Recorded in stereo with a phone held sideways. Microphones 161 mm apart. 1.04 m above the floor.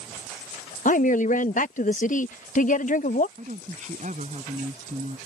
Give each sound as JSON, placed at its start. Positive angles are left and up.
{"t": 0.8, "sound": "a woman speaking", "side_deg": 55}
{"t": 3.4, "sound": "a woman speaking", "side_deg": -50}